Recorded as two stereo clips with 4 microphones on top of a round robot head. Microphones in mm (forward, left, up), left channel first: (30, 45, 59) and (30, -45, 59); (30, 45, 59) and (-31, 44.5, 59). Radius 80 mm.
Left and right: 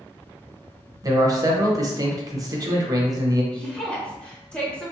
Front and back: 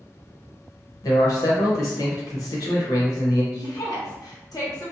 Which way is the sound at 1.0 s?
40° right.